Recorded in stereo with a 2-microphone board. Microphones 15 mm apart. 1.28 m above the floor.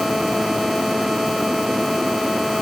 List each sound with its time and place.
Only background noise.